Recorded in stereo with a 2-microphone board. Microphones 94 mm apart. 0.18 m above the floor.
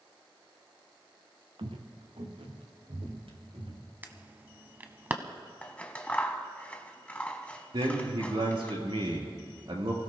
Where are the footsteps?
65° right (ahead or behind), 1.7 m.